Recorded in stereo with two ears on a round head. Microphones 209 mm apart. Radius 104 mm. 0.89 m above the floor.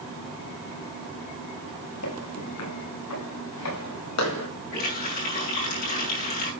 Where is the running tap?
40° left (ahead or behind), 6.5 m.